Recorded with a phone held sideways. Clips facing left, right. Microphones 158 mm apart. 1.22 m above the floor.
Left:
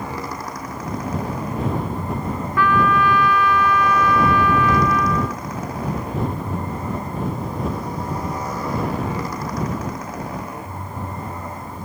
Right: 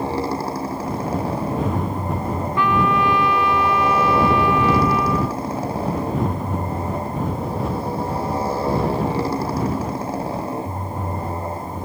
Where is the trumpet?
25° right (ahead or behind).